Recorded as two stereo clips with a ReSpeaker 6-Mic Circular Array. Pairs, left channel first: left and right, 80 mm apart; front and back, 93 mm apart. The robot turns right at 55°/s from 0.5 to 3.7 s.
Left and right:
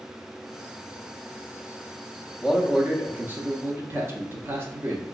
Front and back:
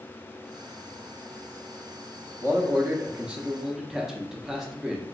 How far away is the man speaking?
About 0.6 m.